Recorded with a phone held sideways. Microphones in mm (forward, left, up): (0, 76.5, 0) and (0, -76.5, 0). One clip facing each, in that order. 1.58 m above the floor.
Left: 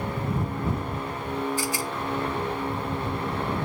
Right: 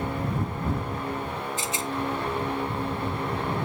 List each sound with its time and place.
1.6 s a rattle: 20° right (ahead or behind)